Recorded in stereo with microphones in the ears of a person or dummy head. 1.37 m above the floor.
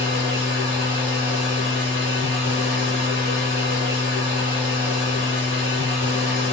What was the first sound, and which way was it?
A machine running, 15° right (ahead or behind).